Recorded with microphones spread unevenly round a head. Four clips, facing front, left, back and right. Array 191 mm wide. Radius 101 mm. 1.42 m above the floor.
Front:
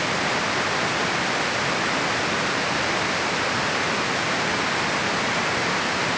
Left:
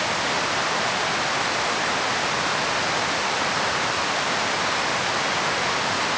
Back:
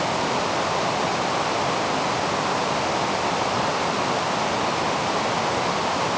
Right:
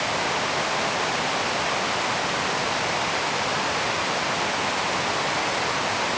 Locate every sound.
Only background noise.